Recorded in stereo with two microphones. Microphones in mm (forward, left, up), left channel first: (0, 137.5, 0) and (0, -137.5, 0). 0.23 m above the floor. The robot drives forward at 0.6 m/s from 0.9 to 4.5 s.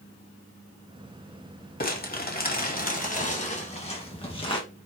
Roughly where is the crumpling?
Left.